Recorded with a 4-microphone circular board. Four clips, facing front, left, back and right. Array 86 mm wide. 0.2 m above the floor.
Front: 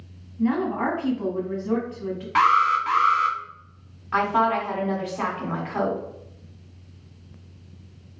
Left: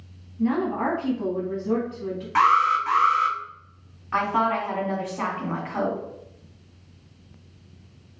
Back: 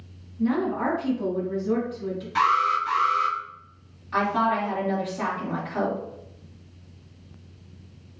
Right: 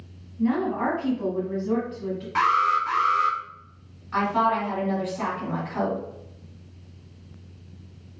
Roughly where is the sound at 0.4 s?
Ahead.